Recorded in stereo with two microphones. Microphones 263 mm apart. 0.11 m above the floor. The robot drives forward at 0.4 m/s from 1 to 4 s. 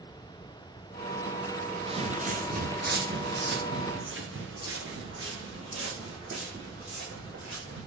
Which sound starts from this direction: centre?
Footsteps, at 1.9 s.